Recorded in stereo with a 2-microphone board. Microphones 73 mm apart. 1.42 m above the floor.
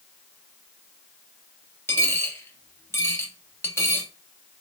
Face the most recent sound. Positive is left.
turn(degrees=35)  # may be behind; listen again after turning